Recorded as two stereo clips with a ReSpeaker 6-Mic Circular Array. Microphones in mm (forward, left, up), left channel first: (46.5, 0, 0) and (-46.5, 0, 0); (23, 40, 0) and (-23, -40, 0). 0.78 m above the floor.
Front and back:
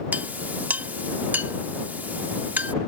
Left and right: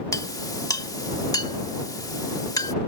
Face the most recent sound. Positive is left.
turn(degrees=110)